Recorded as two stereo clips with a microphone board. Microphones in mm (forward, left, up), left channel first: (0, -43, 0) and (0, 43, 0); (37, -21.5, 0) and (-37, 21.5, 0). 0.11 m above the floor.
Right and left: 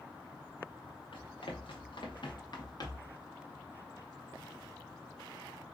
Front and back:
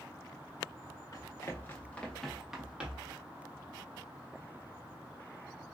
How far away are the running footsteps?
About 1.3 m.